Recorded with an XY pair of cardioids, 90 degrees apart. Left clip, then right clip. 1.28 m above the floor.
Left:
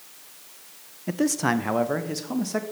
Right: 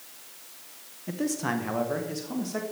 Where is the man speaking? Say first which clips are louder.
Left 6 dB; 55° left, 0.6 m; by 2.6 s 50° left, 1.6 m.